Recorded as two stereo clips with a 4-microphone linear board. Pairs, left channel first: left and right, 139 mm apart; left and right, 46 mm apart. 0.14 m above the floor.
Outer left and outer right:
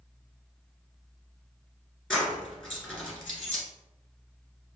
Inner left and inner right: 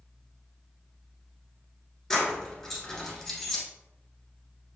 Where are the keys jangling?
Centre (ahead or behind), 1.3 m.